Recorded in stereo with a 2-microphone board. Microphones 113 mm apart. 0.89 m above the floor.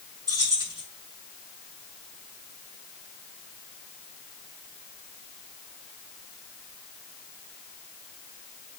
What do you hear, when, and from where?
0.3 s keys jangling: 30° right (ahead or behind), 6 m